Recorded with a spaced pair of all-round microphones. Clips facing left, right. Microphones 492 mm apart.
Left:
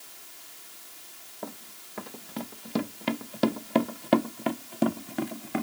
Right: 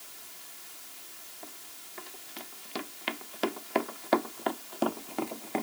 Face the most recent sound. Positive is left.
turn(degrees=30)  # may be behind; listen again after turning